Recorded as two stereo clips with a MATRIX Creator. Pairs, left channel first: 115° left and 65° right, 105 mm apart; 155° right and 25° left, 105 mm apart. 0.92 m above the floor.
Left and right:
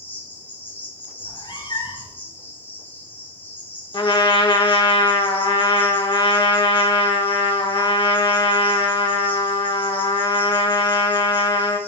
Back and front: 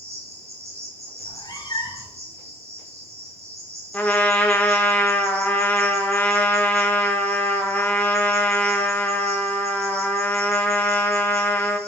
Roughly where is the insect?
Ahead left.